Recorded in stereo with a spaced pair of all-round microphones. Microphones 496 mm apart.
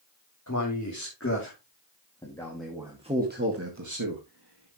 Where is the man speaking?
35° left (ahead or behind), 3 m; by 4.8 s 60° right (ahead or behind), 2 m.